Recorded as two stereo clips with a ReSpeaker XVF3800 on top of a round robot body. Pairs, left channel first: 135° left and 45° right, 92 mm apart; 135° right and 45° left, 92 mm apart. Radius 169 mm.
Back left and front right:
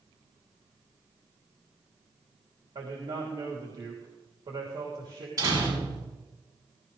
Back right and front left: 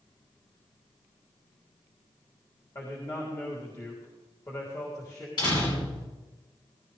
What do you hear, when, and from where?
2.8 s a man speaking: 80° right, 3 m
5.4 s a door slam: 95° right, 8 m